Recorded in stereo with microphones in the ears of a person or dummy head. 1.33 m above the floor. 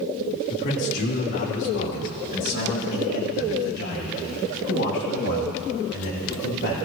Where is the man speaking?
60° left (ahead or behind), 2 m; by 6.8 s 65° left (ahead or behind), 8 m.